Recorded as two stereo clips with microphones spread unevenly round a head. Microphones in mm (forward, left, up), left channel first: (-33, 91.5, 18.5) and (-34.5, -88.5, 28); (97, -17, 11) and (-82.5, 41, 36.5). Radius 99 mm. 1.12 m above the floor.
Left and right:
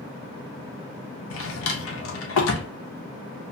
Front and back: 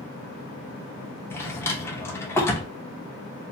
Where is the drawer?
65° left, 0.6 m.